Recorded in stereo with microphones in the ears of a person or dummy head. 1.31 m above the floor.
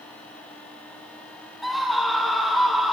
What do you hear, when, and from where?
1.6 s a scream: 10° left (ahead or behind), 1.4 m